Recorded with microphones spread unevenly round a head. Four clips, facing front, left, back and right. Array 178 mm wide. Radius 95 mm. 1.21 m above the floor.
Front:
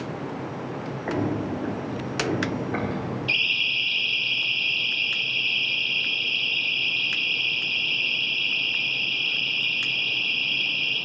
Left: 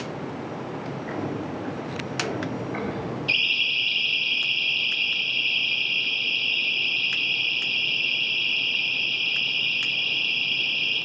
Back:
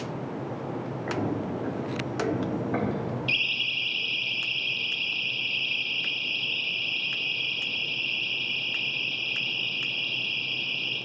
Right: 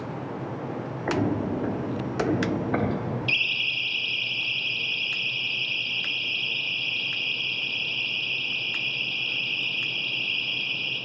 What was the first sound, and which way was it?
Footsteps, 50° right.